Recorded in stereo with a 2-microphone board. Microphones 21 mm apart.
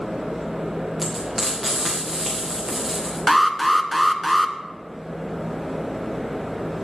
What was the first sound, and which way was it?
Frying, 15° right (ahead or behind).